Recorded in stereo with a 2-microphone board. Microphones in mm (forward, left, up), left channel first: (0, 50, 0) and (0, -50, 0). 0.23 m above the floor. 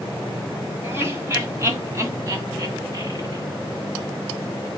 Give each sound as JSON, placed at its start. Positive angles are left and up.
{"t": 0.8, "sound": "laughter", "side_deg": -25, "distance_m": 1.7}